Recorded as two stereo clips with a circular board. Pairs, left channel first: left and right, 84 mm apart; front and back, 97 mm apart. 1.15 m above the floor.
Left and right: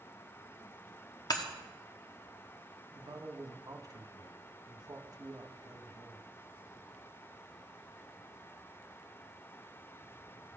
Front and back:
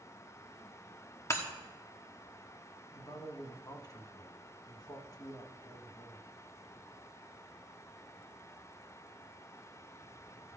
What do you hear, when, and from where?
1.3 s breaking glass: 55° left, 1.2 m
2.9 s a man speaking: 50° right, 1.2 m